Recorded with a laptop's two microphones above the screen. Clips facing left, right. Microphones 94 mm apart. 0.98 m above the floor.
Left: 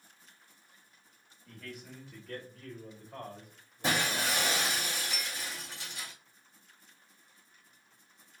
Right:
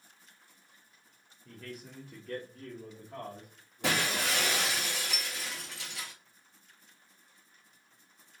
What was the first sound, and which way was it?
A man speaking, 30° right (ahead or behind).